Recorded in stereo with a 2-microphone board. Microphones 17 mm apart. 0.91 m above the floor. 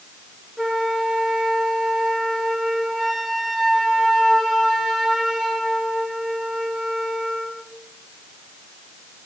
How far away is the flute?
About 2.5 m.